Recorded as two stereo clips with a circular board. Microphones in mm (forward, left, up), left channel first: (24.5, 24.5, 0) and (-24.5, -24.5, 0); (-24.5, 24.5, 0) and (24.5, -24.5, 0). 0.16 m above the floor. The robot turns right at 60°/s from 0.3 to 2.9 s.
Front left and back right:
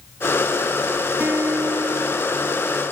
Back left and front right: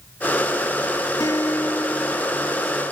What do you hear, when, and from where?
1.2 s a guitar: 165° left, 1.0 m; by 2.8 s 100° right, 1.0 m